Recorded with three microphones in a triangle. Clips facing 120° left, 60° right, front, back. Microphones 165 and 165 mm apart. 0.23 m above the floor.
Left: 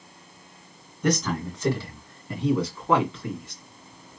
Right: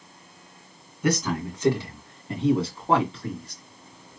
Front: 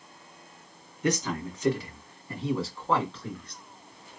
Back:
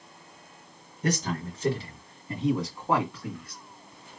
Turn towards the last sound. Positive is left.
turn(degrees=-100)